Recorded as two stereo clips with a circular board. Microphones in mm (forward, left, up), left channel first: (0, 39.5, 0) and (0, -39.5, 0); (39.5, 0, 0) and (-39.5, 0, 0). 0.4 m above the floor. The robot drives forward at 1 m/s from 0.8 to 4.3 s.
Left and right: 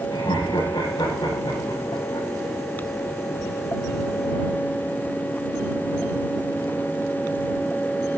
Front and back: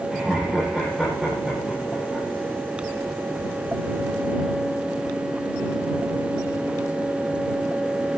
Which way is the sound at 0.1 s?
95° left.